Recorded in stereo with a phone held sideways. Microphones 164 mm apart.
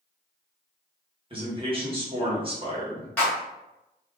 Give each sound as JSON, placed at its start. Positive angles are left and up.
{"t": 1.3, "sound": "a man speaking", "side_deg": -30, "distance_m": 1.4}
{"t": 3.2, "sound": "a clap", "side_deg": 10, "distance_m": 1.4}